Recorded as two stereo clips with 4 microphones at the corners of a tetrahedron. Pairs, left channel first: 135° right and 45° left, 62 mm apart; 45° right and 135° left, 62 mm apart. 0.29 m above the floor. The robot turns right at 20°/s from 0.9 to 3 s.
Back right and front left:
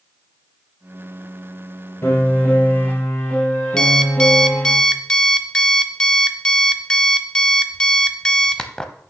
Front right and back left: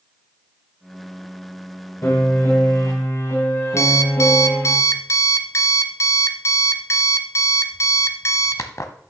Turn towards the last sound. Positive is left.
turn(degrees=-60)